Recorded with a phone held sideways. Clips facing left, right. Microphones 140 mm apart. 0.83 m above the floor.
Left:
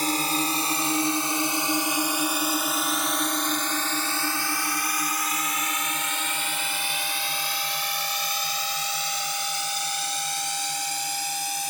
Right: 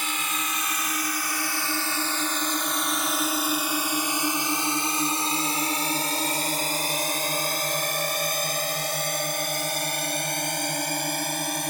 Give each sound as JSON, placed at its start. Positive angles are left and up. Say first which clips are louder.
{"t": 0.0, "sound": "a drone", "louder": "left 6 dB", "side_deg": 40}